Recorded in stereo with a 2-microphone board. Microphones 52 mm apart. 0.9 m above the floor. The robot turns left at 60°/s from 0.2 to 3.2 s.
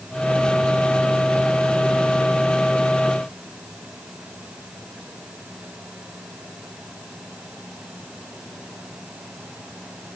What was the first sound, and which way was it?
Only background noise.